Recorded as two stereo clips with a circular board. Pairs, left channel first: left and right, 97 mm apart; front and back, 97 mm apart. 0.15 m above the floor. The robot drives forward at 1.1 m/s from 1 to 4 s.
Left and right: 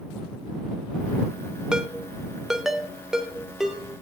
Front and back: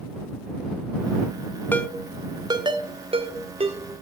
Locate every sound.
1.7 s a ringtone: 20° right, 0.7 m; by 3.8 s straight behind, 2 m